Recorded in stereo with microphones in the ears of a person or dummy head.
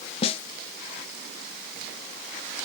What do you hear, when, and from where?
0.2 s a snare drum: 30° left (ahead or behind), 0.6 m